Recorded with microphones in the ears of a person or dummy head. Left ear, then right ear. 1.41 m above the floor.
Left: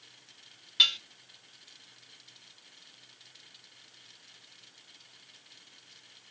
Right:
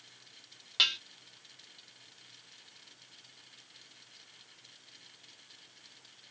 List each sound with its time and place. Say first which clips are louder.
0.8 s dishes clattering: left 4 dB; 15° right (ahead or behind), 0.9 m